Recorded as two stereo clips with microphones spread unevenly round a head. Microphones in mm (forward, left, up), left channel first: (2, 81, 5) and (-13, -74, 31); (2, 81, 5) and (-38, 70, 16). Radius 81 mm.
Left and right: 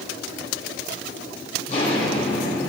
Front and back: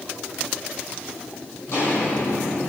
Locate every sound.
1.7 s footsteps: 35° left, 3 m; by 2.7 s 20° left, 2.5 m